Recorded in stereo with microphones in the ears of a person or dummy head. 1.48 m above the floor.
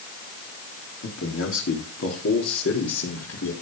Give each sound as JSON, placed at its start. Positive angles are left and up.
{"t": 1.0, "sound": "a man speaking", "side_deg": 60, "distance_m": 3.5}